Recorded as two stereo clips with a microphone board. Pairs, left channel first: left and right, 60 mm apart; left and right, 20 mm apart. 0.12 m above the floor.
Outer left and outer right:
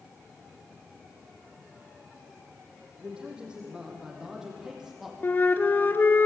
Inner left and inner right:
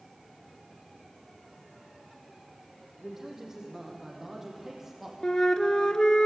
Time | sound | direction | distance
3.0 | a man speaking | 15° right (ahead or behind) | 5.5 m
5.2 | a flute | 35° left (ahead or behind) | 1.5 m